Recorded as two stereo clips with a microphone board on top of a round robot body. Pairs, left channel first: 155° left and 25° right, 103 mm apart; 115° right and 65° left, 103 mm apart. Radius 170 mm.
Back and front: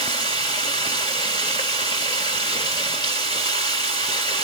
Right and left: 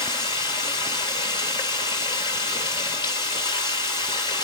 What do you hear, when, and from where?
0.0 s running water: 155° right, 1.0 m